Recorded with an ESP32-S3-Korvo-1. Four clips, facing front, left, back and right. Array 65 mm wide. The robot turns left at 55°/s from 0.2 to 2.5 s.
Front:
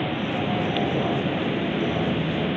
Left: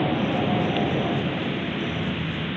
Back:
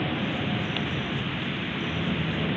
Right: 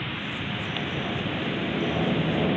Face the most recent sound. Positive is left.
turn(degrees=-55)